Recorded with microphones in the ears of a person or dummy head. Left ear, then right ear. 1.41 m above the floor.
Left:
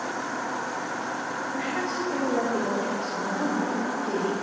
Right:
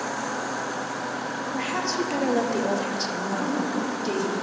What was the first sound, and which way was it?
A woman speaking, 35° right (ahead or behind).